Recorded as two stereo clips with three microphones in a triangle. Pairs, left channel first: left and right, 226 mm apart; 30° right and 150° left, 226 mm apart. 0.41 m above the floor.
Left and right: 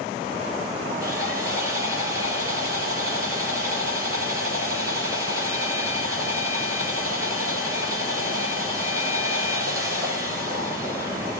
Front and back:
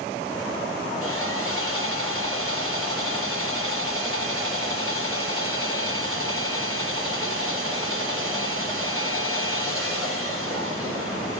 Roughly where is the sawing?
Ahead.